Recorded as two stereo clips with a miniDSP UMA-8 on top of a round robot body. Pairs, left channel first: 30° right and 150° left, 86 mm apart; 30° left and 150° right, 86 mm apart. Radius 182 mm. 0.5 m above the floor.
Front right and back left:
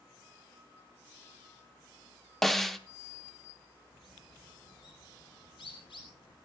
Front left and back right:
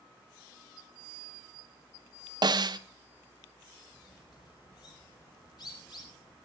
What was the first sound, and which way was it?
A snare drum, 115° right.